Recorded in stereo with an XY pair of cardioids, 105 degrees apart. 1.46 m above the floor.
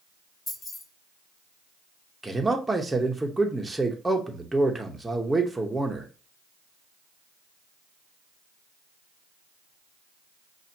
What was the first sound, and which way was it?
Keys jangling, 35° left.